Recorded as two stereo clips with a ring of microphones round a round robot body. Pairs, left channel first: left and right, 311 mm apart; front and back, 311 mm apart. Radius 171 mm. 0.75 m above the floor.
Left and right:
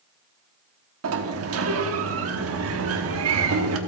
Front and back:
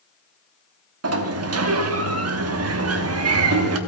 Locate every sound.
1.0 s a sliding door: 140° right, 1.0 m